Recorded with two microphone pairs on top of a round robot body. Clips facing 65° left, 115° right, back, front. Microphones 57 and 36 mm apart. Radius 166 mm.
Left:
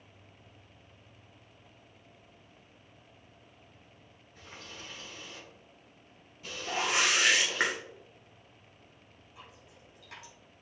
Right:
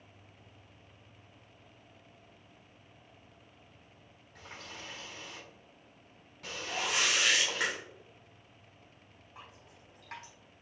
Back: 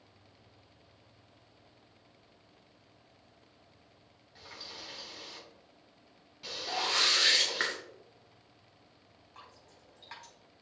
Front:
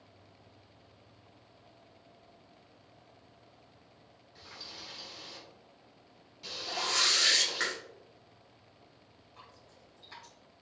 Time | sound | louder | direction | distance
4.3 | a running tap | right 1 dB, back 1 dB | 110° right | 3.5 m
6.7 | a whoosh | left 3 dB, back 1 dB | 110° left | 1.8 m
9.3 | dripping | right 1 dB, back 1 dB | 150° right | 4 m